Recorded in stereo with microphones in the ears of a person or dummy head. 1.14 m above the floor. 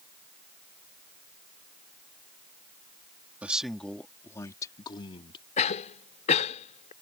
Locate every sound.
3.4 s a man speaking: 5° right (ahead or behind); by 5.5 s 30° left (ahead or behind)
5.6 s a cough: 40° left (ahead or behind)